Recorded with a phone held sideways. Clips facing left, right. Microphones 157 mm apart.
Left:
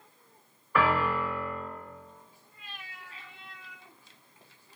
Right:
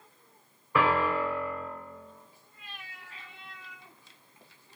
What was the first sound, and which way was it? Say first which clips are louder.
A piano: right 1 dB; 25° right (ahead or behind).